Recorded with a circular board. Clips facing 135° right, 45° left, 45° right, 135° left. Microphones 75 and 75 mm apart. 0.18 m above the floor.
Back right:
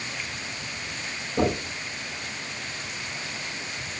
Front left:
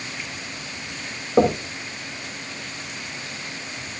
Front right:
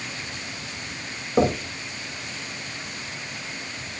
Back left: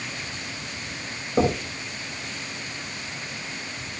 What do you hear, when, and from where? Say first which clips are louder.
1.4 s knocking: front left 7 dB, front right 1 dB; 30° left, 7.5 m